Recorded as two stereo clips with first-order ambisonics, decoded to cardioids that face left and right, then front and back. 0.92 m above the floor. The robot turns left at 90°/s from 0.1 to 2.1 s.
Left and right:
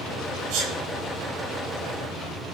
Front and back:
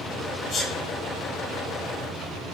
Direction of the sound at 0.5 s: 60° right.